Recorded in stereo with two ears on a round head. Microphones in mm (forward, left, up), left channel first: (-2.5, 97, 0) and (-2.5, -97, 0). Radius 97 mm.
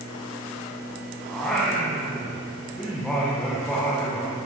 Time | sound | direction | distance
1.3 | singing | 5° left (ahead or behind) | 8 m